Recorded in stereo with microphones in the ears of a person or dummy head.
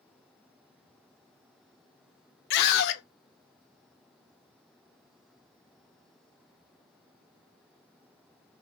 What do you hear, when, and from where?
2.5 s a scream: 60° left (ahead or behind), 0.6 m